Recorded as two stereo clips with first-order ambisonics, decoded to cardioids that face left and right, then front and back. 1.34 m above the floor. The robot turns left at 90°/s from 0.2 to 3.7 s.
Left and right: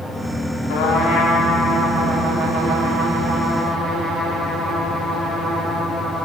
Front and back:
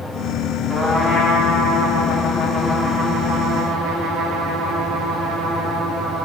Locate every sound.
0.7 s a trumpet: 90° left, 2.5 m; by 6.2 s straight behind, 2.5 m